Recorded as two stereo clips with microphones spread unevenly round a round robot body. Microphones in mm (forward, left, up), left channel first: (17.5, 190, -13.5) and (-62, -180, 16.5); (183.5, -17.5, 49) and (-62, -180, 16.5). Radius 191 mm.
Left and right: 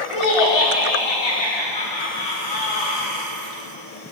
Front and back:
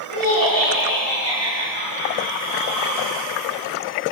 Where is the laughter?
80° left, 5.5 m.